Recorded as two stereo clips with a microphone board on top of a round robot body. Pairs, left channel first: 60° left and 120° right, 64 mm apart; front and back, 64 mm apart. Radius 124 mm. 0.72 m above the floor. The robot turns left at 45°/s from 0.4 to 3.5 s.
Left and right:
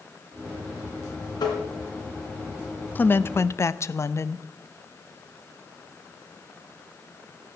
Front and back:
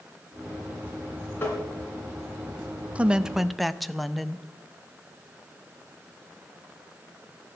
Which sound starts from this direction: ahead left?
Tapping, at 1.4 s.